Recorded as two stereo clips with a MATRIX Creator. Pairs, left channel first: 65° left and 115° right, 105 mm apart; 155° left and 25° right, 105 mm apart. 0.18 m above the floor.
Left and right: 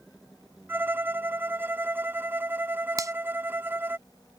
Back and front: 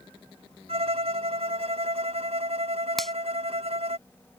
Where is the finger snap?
115° right.